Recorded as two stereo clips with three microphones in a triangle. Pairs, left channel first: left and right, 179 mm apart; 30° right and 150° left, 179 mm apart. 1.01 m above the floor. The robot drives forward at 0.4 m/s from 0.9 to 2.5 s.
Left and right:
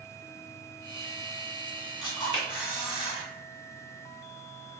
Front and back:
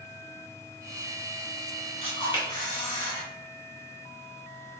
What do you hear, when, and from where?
2.0 s a camera shutter: 25° left, 1.4 m; by 3.2 s 30° left, 1.2 m